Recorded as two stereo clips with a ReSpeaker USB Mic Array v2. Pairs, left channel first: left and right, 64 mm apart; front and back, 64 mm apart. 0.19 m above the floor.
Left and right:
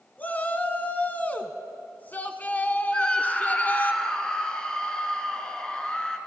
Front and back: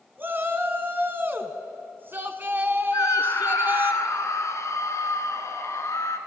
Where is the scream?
15° left, 2.5 m.